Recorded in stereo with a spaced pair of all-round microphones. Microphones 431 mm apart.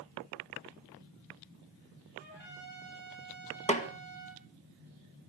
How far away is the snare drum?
About 1.8 m.